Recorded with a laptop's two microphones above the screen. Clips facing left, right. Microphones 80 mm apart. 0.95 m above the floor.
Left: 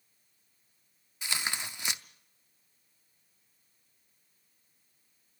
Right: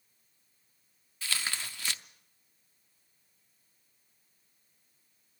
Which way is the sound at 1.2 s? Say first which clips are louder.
Left 1 dB; 20° left (ahead or behind).